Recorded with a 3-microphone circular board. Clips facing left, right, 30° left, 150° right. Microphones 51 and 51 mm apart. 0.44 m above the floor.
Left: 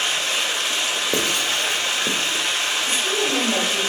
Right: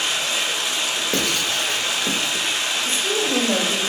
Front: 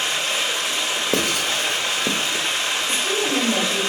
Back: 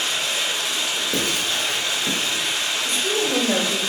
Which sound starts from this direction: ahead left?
Running water, at 0.0 s.